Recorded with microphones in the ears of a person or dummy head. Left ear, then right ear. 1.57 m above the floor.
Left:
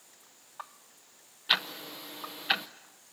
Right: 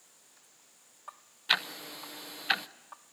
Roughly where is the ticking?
Centre.